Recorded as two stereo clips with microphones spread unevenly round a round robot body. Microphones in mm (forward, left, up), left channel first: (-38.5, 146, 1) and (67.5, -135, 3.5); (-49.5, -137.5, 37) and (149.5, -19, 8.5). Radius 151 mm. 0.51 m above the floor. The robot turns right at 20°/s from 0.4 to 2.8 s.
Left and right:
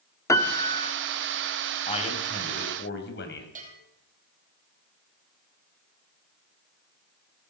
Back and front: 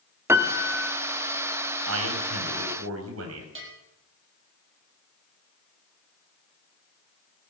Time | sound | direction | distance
0.3 | a piano | 55° left | 1.1 m
1.9 | a man speaking | 40° left | 3.5 m
3.5 | a bell | 5° right | 4.5 m